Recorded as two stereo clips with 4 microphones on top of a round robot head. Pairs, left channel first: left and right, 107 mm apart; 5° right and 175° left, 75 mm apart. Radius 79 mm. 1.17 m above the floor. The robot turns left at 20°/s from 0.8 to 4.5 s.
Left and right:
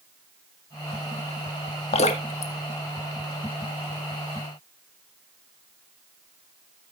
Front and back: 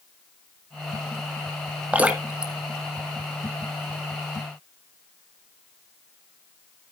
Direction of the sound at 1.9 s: 105° left.